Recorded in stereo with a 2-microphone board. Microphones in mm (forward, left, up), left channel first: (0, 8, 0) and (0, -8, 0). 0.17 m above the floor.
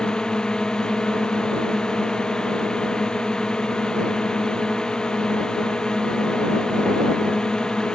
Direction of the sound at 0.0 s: 55° left (ahead or behind).